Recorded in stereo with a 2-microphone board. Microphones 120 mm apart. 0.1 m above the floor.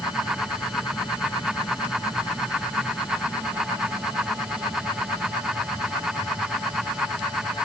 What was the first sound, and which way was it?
Only background noise.